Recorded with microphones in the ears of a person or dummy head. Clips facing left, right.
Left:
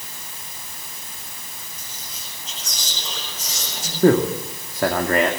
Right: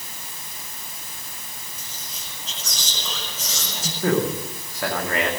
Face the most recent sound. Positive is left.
turn(degrees=45)  # may be behind; listen again after turning